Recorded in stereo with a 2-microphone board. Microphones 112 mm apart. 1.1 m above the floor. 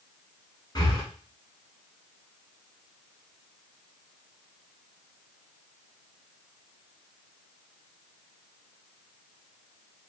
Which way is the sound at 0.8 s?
40° left (ahead or behind).